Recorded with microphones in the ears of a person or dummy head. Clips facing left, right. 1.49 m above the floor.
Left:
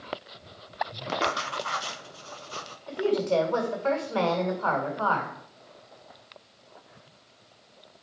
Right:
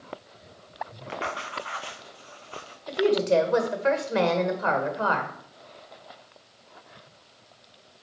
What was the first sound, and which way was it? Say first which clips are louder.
Writing: left 4 dB; 55° left (ahead or behind).